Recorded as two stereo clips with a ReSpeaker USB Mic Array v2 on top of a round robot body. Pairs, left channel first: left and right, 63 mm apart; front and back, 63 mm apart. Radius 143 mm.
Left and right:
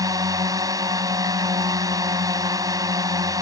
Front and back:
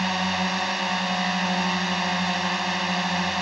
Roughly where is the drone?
Right.